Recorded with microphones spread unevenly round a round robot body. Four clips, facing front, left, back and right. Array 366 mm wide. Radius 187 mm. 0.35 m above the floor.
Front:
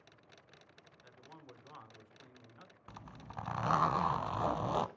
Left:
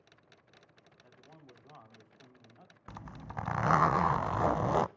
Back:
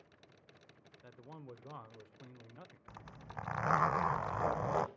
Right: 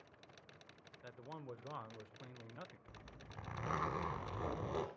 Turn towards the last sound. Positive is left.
turn(degrees=80)